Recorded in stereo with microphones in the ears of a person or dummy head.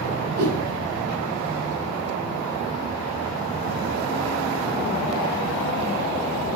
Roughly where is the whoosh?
Right.